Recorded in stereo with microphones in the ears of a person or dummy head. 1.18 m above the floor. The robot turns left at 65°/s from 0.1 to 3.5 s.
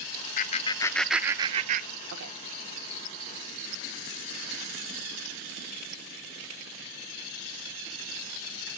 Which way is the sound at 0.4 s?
40° left (ahead or behind).